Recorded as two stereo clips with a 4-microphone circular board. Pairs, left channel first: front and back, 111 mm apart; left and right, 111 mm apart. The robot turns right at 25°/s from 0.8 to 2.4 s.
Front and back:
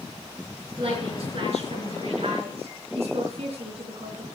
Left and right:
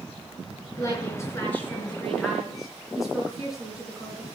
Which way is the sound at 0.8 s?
145° left.